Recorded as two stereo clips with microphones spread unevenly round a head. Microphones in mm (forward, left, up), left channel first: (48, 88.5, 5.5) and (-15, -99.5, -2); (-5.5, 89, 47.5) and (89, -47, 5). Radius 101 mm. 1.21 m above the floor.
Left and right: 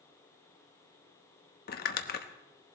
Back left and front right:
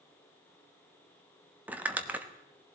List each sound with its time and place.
1.7 s crumpling: 30° left, 1.1 m